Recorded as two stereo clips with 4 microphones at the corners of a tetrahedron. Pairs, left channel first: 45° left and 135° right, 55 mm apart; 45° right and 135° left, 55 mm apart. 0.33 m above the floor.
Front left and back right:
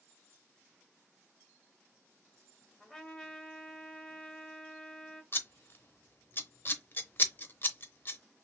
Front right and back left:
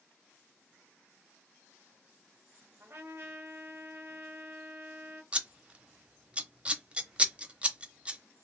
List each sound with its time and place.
2.8 s a trumpet: 125° left, 1.3 m
5.3 s scissors: 75° left, 0.7 m